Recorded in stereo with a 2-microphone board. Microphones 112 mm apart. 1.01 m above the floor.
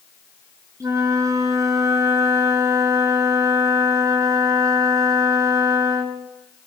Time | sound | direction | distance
0.8 | a flute | 30° right (ahead or behind) | 3 m